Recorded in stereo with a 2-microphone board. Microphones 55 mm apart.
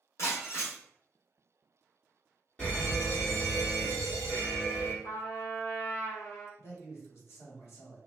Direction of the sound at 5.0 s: 55° left (ahead or behind).